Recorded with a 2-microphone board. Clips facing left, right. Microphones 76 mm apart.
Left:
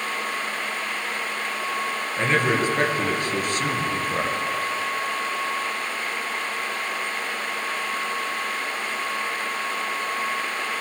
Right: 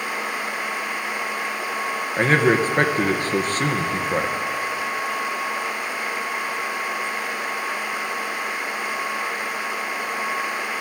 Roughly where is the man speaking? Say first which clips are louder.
Right 4 dB; right.